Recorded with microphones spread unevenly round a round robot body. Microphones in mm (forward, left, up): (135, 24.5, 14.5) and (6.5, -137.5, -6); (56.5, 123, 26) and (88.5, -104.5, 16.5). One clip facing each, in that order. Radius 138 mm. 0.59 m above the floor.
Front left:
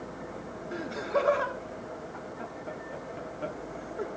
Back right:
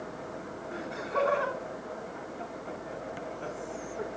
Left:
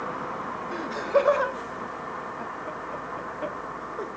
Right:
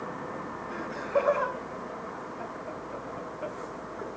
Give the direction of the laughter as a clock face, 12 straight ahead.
9 o'clock.